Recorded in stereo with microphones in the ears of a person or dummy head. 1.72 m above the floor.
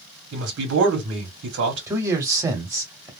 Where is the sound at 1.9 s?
20° right (ahead or behind), 1.0 m.